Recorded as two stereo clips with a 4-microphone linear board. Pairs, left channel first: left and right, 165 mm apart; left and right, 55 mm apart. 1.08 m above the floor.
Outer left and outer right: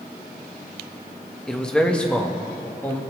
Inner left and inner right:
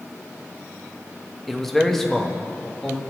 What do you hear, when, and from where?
1.5 s a man speaking: 5° left (ahead or behind), 1.0 m; by 3.0 s 10° left (ahead or behind), 1.8 m